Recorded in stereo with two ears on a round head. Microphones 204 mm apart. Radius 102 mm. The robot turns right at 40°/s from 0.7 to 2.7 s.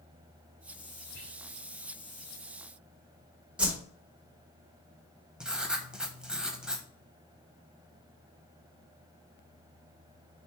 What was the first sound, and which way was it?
Whispering, 65° left (ahead or behind).